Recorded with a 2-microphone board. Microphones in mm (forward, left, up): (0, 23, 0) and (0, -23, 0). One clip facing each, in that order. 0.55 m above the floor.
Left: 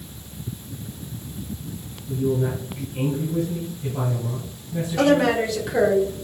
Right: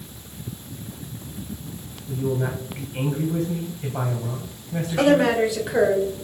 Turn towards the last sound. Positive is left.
turn(degrees=-10)  # may be behind; listen again after turning